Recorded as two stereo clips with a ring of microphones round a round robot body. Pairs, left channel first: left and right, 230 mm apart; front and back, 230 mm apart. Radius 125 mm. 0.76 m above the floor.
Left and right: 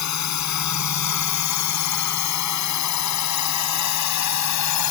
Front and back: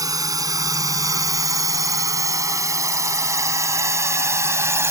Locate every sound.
0.0 s a drone: 105° left; by 4.9 s 100° left